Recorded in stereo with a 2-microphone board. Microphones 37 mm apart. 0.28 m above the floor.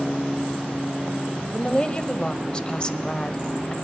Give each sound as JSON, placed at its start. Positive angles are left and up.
{"t": 1.5, "sound": "a woman speaking", "side_deg": 25, "distance_m": 0.9}